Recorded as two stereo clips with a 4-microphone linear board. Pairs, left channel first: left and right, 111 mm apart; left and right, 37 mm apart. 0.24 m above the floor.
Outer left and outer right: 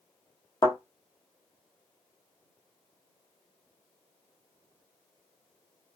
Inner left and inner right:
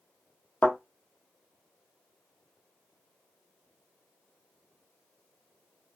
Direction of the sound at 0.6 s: 40° left (ahead or behind).